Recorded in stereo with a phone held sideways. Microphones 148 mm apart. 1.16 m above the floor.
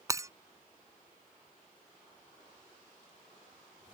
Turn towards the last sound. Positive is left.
turn(degrees=-20)  # may be behind; listen again after turning